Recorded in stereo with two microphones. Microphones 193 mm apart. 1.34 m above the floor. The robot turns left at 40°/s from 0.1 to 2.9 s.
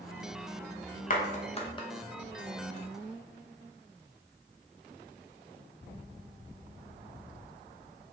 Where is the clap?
45° left (ahead or behind), 0.7 m; by 1.9 s 20° left (ahead or behind), 0.7 m.